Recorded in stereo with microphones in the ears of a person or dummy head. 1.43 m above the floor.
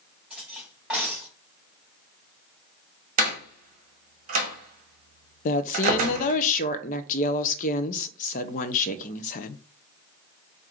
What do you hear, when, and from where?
0.3 s cutlery clinking: 5° right (ahead or behind), 2 m
3.2 s a door slam: 40° right (ahead or behind), 0.8 m
5.5 s a woman speaking: 45° left (ahead or behind), 0.5 m